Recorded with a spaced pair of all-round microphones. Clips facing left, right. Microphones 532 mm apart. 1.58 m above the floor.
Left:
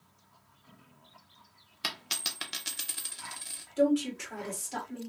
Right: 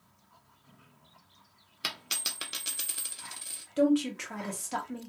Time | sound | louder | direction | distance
1.8 | a dropped coin | left 1 dB | 20° left (ahead or behind) | 0.9 m
3.8 | a woman speaking | right 1 dB | 75° right (ahead or behind) | 1.5 m